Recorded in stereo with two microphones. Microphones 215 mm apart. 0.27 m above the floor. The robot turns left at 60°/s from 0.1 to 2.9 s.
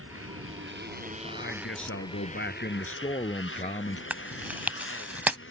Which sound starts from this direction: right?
A motorcycle, at 0.0 s.